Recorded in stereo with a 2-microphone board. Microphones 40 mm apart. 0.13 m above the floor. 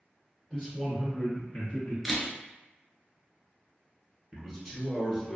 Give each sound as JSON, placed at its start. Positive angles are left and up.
{"t": 0.5, "sound": "a man speaking", "side_deg": 15, "distance_m": 1.5}
{"t": 2.0, "sound": "a camera shutter", "side_deg": 5, "distance_m": 0.6}
{"t": 4.3, "sound": "a man speaking", "side_deg": 5, "distance_m": 1.1}